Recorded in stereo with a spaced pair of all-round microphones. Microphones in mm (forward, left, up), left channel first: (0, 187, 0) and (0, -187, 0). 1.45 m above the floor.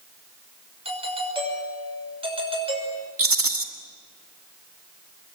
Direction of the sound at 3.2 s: 60° right (ahead or behind).